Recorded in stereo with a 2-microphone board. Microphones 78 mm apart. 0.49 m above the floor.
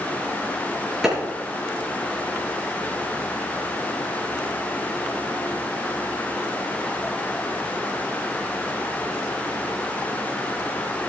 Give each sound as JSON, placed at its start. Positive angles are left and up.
{"t": 1.0, "sound": "a clap", "side_deg": -5, "distance_m": 6.0}